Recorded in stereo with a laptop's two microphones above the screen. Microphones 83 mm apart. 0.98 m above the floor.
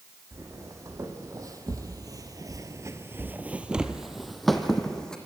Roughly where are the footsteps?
Right.